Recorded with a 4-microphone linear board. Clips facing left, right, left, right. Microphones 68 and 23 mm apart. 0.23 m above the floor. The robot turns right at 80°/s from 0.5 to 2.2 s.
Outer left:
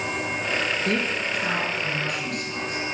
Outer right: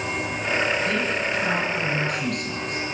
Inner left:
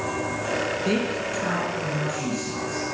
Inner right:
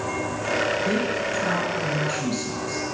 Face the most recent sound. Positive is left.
turn(degrees=-115)